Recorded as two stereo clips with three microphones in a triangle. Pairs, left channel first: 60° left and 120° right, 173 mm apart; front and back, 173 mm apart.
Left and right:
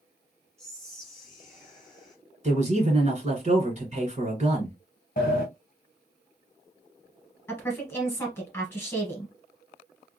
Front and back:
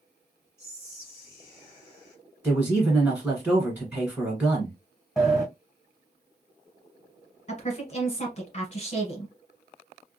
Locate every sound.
0.6 s whispering: 25° right, 1.0 m
2.4 s a man speaking: 105° right, 1.7 m
5.2 s a sliding door: 90° left, 1.4 m
7.5 s a woman speaking: 10° right, 1.5 m